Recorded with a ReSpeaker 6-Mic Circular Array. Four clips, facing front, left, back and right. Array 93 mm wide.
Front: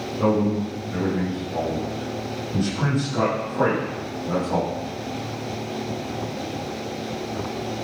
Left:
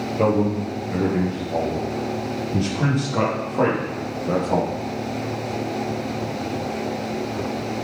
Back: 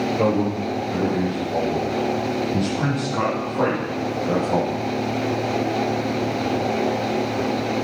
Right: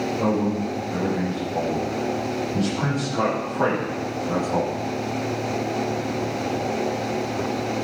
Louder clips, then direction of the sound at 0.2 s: Left 5 dB, front 3 dB; 125° left.